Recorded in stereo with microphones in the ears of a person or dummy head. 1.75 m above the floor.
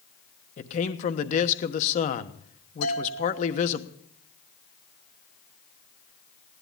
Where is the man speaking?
40° left (ahead or behind), 1.2 m.